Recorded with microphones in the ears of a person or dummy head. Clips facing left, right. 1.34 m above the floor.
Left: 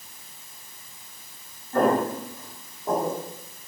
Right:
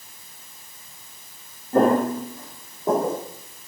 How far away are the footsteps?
About 2.5 m.